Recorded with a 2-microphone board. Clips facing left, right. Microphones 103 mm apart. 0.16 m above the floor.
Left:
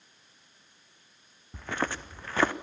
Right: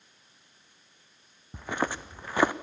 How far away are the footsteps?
About 0.8 m.